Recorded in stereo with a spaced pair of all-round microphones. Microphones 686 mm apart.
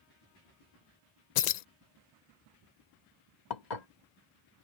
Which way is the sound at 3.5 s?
80° left.